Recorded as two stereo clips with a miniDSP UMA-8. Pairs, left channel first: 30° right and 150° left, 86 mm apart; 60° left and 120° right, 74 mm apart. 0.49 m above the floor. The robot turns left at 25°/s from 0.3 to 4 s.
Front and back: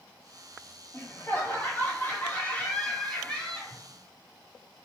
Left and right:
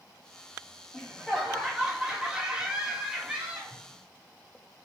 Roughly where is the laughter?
Ahead right.